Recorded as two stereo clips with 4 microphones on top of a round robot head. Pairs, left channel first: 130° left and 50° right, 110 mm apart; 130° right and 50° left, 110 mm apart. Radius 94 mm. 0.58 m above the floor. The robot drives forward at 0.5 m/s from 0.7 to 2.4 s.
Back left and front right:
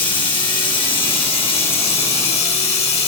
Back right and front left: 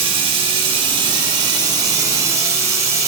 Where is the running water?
90° left, 2.5 m; by 3.1 s 110° left, 2.5 m.